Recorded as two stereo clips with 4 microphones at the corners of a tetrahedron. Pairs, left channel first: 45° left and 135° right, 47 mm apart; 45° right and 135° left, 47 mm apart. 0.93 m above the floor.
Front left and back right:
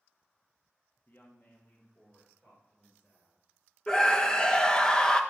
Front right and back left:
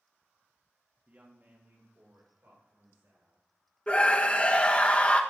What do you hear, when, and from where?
1.1 s a woman speaking: 80° left, 1.3 m; by 3.4 s 100° left, 4.5 m
3.9 s a scream: 15° right, 1.0 m